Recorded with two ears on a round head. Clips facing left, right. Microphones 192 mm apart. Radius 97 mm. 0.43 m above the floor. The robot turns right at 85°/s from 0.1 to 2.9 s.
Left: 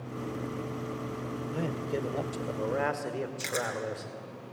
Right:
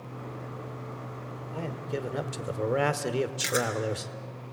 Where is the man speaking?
145° left, 1.0 m; by 4.1 s 95° right, 1.0 m.